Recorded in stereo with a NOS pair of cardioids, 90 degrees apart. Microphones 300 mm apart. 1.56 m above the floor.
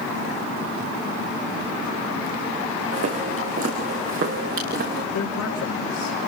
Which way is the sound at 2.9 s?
50° right.